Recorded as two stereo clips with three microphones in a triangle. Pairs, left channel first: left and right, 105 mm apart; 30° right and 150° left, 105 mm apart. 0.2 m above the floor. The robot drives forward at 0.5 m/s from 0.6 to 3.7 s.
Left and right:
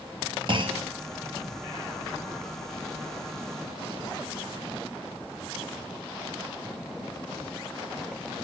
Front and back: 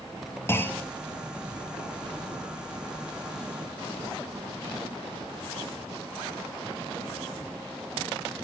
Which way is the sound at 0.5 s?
90° right.